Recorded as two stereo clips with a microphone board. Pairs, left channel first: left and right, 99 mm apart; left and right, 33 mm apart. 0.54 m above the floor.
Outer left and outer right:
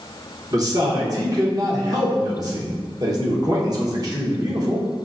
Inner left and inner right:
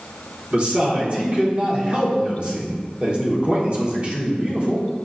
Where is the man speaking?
35° right (ahead or behind), 0.9 m.